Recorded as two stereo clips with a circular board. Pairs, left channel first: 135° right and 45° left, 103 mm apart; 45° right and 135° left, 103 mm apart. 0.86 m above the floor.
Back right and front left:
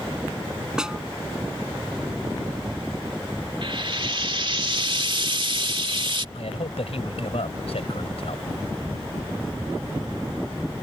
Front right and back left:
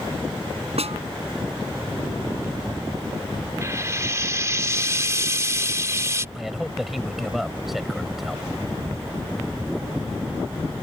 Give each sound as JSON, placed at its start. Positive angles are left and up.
{"t": 0.8, "sound": "a snare drum", "azimuth_deg": 130}
{"t": 3.6, "sound": "frying", "azimuth_deg": 75}
{"t": 6.3, "sound": "a man speaking", "azimuth_deg": -135}